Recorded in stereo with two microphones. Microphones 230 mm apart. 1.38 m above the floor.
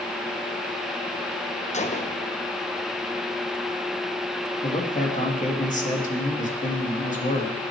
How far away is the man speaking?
About 3 m.